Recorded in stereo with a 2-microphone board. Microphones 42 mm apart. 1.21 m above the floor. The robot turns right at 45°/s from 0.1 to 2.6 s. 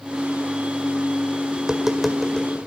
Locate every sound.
1.6 s tapping: 20° right (ahead or behind), 1.8 m; by 2.5 s 15° left (ahead or behind), 1.8 m